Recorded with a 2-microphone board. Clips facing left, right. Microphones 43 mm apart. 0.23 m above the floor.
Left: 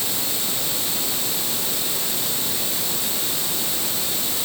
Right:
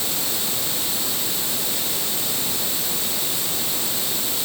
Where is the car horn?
I don't hear a car horn.